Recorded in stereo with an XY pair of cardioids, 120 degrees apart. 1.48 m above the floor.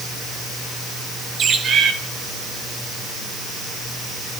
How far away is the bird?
About 1.8 m.